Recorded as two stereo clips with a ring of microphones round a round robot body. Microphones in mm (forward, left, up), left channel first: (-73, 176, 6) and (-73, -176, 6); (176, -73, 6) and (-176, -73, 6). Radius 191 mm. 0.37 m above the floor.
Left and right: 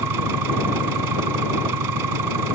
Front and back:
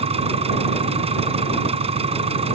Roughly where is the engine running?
Right.